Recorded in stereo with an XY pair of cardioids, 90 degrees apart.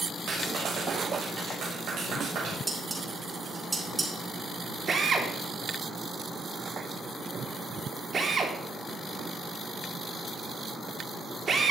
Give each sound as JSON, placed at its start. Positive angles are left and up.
{"t": 0.3, "sound": "a clap", "azimuth_deg": -70, "distance_m": 7.5}
{"t": 2.7, "sound": "dishes clattering", "azimuth_deg": -30, "distance_m": 5.5}
{"t": 4.9, "sound": "a drill", "azimuth_deg": -45, "distance_m": 3.0}